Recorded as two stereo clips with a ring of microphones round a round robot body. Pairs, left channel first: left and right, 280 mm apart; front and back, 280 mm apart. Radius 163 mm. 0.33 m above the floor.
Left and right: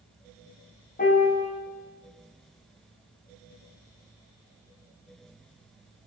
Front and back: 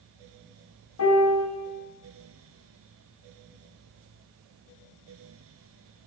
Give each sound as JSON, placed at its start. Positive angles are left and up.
{"t": 1.0, "sound": "a piano", "azimuth_deg": 30, "distance_m": 1.8}